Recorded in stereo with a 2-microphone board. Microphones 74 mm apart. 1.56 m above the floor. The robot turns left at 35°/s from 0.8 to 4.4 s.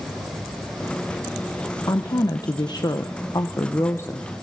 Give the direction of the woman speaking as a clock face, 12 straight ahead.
8 o'clock.